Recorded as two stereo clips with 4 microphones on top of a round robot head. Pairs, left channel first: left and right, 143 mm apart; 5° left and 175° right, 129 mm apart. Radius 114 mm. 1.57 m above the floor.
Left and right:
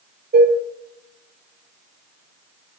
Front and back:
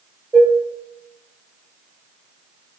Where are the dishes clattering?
80° right, 3 m.